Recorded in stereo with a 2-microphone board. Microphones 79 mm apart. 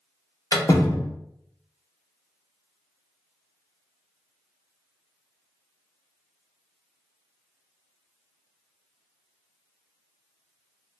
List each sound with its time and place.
0.5 s a door slam: 50° left (ahead or behind), 0.8 m